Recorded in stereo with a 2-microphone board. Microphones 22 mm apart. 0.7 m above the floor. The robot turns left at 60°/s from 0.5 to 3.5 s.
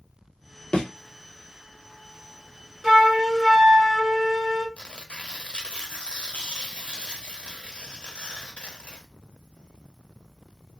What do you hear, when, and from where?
0.7 s a thud: 40° left (ahead or behind), 1.1 m; by 0.9 s 45° left (ahead or behind), 1.1 m
2.8 s a flute: 25° right (ahead or behind), 0.9 m
4.8 s tearing paper: 60° left (ahead or behind), 0.6 m